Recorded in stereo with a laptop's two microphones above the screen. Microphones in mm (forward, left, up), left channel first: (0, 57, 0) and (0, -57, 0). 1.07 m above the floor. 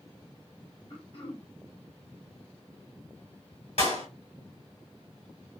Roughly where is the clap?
Left.